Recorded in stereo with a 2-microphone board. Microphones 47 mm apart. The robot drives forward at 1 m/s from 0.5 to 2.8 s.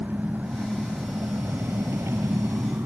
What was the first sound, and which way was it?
An engine running, 35° right (ahead or behind).